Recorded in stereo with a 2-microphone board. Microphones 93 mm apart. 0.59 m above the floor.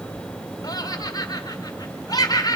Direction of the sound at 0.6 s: 45° left (ahead or behind).